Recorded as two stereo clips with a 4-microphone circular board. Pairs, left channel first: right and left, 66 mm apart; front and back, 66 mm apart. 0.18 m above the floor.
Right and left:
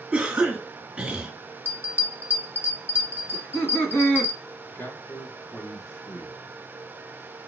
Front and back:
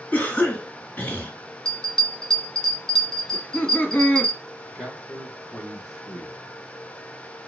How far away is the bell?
About 1.3 m.